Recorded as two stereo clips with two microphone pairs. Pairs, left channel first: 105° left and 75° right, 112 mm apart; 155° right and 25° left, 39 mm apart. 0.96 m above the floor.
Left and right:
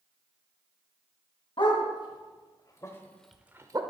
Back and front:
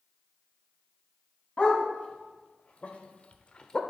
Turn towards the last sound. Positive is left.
turn(degrees=-95)